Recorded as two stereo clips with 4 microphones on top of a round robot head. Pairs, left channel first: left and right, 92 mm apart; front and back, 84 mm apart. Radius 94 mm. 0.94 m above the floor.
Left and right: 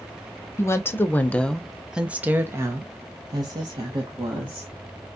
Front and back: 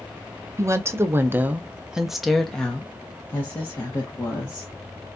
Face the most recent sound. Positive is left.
turn(degrees=-55)